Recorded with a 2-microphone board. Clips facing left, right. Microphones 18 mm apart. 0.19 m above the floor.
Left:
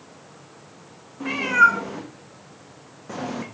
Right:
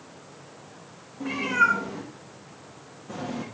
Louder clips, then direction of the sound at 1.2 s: Left 5 dB; 30° left (ahead or behind).